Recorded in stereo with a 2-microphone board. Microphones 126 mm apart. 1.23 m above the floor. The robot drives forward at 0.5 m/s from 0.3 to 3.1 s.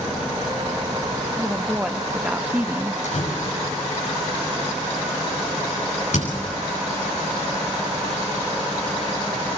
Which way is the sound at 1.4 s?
10° right (ahead or behind).